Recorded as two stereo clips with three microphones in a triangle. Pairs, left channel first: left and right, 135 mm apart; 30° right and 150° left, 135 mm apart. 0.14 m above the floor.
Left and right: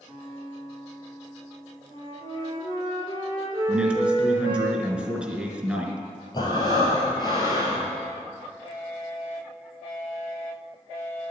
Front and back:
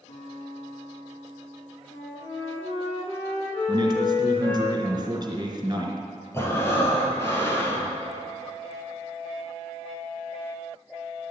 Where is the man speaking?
170° right, 1.9 m.